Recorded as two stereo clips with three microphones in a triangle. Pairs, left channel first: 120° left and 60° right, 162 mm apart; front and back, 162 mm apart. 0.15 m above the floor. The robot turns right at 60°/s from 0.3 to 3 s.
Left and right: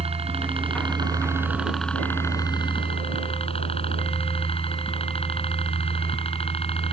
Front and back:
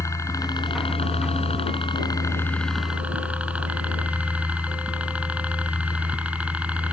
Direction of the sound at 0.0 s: 60° right.